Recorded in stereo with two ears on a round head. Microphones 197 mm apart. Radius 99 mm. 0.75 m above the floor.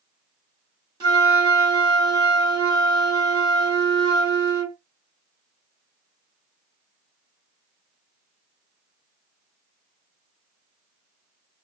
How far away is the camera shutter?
No camera shutter in this recording.